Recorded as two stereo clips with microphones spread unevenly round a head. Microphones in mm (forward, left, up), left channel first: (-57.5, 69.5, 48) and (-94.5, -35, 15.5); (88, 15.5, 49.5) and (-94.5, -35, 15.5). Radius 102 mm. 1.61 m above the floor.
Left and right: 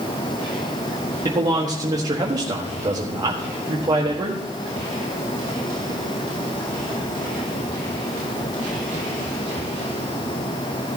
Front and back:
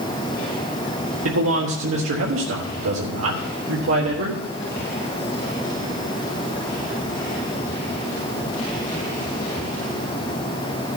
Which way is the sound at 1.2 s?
165° right.